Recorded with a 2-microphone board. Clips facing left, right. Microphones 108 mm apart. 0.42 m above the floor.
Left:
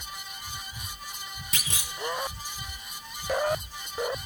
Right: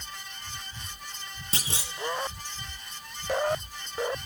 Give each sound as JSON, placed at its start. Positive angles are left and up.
{"t": 1.5, "sound": "a clunk", "side_deg": -35, "distance_m": 0.8}